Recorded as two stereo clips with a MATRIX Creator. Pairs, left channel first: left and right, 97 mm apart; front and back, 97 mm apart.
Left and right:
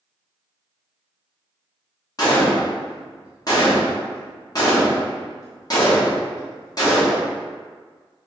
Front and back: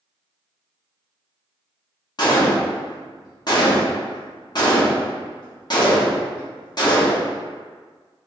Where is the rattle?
No rattle in this recording.